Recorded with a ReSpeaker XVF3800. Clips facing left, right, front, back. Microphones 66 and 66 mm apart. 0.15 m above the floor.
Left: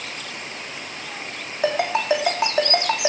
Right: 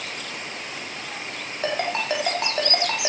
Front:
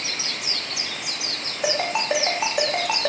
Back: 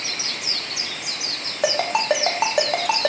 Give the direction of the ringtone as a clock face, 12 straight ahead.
6 o'clock.